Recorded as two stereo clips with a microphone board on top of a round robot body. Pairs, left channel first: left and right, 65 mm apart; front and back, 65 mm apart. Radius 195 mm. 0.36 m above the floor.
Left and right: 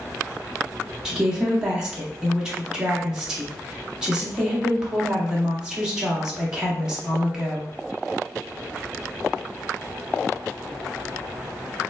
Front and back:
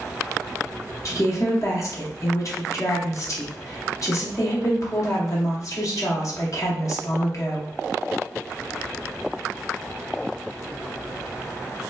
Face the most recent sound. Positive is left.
turn(degrees=-10)